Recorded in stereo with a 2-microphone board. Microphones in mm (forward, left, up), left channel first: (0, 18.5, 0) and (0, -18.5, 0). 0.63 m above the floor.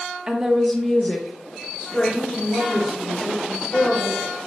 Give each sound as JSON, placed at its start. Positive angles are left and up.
{"t": 0.3, "sound": "a woman speaking", "side_deg": -20, "distance_m": 0.6}